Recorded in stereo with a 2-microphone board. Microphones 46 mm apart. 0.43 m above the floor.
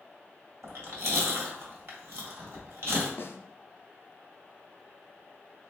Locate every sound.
0.6 s chewing: 65° right (ahead or behind), 1.5 m
3.2 s a snare drum: 60° left (ahead or behind), 0.5 m